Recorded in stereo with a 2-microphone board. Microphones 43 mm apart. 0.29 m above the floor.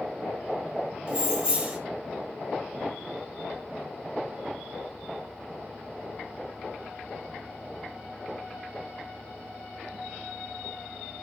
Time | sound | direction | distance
1.1 | keys jangling | 25° right (ahead or behind) | 0.7 m